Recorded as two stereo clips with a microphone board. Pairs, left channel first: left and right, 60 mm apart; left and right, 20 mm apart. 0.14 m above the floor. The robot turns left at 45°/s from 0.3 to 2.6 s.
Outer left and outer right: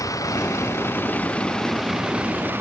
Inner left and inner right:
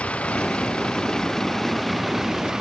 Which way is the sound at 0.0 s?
70° left.